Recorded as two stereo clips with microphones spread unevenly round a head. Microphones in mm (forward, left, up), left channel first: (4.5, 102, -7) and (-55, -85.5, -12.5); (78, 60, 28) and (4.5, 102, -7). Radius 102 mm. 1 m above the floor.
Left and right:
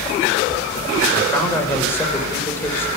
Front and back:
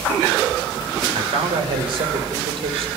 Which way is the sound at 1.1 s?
150° left.